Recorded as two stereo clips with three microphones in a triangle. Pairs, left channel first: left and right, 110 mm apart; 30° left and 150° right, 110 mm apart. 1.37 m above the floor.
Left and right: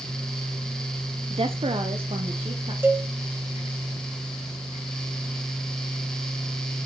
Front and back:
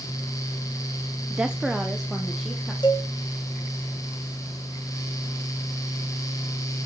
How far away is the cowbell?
About 0.8 m.